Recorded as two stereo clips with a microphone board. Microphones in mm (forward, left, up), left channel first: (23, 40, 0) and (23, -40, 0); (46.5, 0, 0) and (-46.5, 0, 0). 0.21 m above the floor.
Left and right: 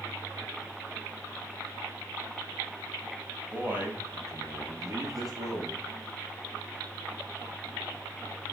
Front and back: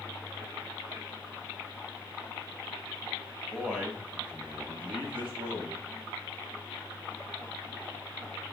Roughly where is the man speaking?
Right.